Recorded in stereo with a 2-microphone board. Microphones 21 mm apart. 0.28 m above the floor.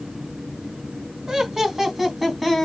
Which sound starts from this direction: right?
Laughter, at 1.3 s.